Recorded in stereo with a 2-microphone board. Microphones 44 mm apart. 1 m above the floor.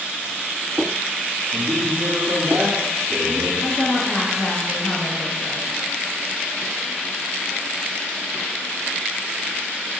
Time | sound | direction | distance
1.5 | a man speaking | 65° right (ahead or behind) | 1.8 m
3.6 | a woman speaking | 45° left (ahead or behind) | 0.7 m